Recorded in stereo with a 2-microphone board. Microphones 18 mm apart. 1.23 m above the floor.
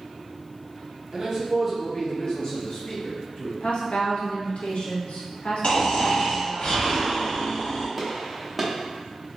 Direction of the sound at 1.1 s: 45° right (ahead or behind).